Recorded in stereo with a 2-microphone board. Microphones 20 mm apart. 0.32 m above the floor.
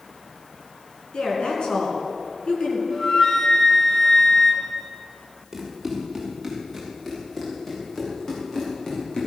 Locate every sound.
1.1 s a woman speaking: 60° left (ahead or behind), 4 m
2.9 s a flute: 35° left (ahead or behind), 2 m
5.5 s running footsteps: 10° right (ahead or behind), 6 m; by 9.3 s 40° left (ahead or behind), 7 m